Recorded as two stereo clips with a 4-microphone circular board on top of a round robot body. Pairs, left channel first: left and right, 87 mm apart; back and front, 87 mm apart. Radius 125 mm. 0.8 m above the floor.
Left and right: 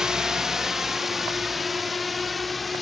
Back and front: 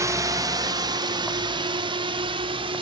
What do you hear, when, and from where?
0.0 s a drone: 10° right; by 2.8 s straight ahead